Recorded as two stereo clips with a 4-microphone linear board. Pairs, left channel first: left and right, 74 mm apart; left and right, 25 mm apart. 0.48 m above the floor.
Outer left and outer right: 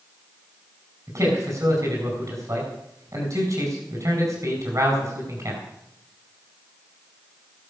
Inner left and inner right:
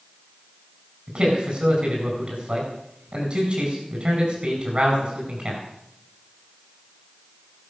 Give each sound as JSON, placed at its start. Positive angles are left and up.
{"t": 1.1, "sound": "a man speaking", "side_deg": -55, "distance_m": 4.5}